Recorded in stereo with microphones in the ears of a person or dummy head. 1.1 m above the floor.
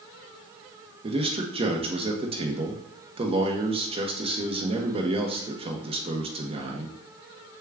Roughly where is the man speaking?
Right.